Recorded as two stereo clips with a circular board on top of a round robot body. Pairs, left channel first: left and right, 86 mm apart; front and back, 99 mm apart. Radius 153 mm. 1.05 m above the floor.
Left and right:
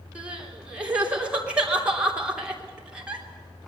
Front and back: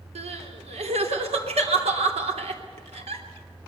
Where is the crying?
170° right, 3 m.